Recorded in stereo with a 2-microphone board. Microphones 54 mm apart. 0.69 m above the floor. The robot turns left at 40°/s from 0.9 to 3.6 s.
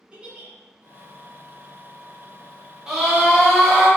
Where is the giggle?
20° right (ahead or behind), 0.8 m.